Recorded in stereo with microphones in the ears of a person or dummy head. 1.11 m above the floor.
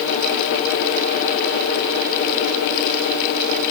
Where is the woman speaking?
I don't hear a woman speaking.